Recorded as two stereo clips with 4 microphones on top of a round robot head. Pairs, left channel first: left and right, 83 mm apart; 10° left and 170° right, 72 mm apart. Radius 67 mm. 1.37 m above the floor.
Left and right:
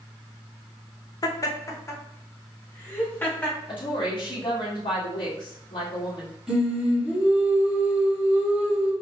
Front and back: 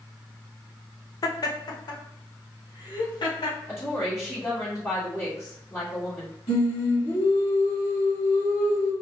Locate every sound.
1.2 s laughter: 45° left, 0.8 m; by 3.6 s 20° left, 1.9 m
3.7 s a woman speaking: 65° left, 1.8 m
6.5 s singing: 5° right, 1.8 m